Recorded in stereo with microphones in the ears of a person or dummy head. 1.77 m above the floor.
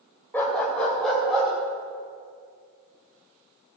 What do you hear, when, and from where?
0.3 s a dog barking: 10° left (ahead or behind), 2 m; by 1.5 s 5° right (ahead or behind), 3 m